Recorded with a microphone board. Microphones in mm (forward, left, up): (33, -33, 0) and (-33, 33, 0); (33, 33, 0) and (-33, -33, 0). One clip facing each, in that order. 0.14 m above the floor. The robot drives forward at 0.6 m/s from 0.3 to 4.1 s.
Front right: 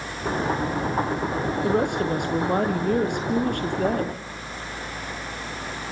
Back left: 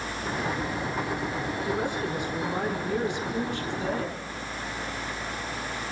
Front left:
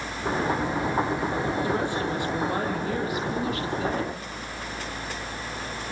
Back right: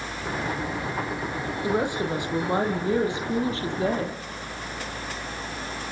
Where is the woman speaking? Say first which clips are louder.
Front right 8 dB, back right 1 dB; 65° right, 5 m; by 4.2 s 80° right, 4.5 m.